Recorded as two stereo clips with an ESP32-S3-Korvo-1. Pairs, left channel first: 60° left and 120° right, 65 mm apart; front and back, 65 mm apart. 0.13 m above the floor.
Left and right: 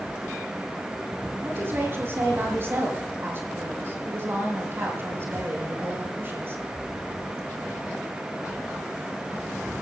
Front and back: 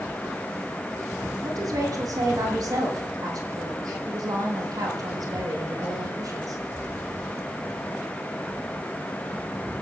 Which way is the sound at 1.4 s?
170° right.